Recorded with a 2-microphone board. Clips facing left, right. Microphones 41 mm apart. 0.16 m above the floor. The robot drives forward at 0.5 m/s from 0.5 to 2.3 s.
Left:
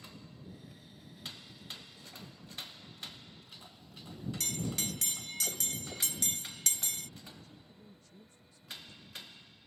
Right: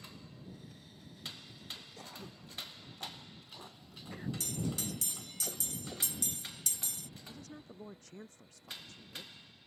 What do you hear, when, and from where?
2.0 s throat clearing: 70° right (ahead or behind)
4.4 s a bell: 65° left (ahead or behind)
7.2 s a woman speaking: 80° right